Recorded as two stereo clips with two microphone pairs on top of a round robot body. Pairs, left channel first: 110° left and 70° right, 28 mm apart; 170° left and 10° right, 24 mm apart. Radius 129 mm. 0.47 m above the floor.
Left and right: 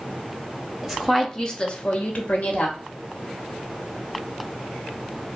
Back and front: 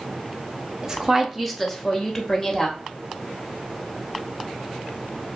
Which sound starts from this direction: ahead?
A woman speaking, at 0.8 s.